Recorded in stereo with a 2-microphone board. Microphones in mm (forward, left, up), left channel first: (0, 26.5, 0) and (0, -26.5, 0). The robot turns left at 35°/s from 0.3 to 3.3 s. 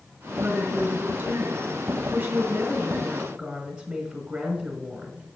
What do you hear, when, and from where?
0.4 s a woman speaking: 70° right, 1.6 m; by 5.3 s 175° right, 1.6 m